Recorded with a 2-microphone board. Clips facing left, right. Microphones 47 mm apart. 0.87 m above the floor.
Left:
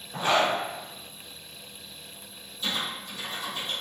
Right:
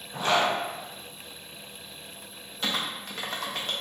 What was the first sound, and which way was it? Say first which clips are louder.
A zipper: left 1 dB; 15° left (ahead or behind).